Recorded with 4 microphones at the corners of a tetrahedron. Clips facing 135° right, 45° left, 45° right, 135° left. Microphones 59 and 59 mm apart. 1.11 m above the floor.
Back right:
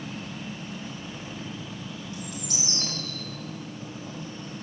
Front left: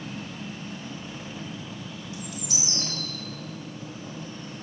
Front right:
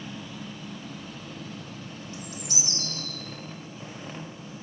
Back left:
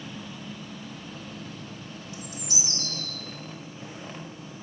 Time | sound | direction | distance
2.1 | a bird | 95° right | 3 m